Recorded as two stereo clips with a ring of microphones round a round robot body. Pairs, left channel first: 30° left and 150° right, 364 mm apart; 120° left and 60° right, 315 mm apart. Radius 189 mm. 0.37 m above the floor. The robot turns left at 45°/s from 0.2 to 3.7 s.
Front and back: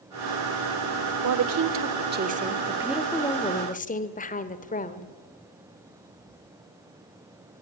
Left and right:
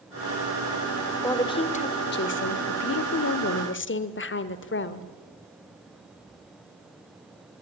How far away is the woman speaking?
About 1.5 m.